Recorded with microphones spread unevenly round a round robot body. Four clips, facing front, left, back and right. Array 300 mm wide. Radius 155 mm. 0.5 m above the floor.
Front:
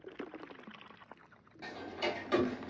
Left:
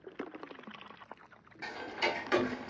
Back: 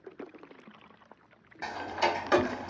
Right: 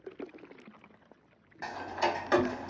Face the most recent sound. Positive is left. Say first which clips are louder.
# right 4 dB, back 8 dB
turn(degrees=-165)